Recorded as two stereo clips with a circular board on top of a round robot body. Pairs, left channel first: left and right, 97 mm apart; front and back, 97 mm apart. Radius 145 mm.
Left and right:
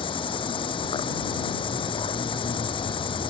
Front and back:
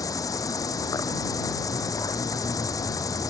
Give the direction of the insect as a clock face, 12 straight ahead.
10 o'clock.